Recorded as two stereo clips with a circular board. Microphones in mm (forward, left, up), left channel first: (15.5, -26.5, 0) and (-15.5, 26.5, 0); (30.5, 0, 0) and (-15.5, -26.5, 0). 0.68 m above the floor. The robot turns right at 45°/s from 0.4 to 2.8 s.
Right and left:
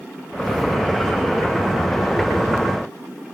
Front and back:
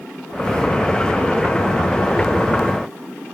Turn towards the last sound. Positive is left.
No sound to turn to.